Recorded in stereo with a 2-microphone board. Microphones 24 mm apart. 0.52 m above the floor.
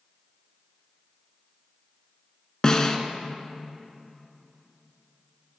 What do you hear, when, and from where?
2.6 s a snare drum: 25° left (ahead or behind), 0.9 m